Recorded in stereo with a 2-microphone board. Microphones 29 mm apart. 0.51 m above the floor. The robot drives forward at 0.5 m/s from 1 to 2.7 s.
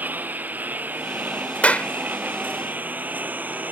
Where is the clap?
55° left (ahead or behind); by 1.9 s 50° left (ahead or behind).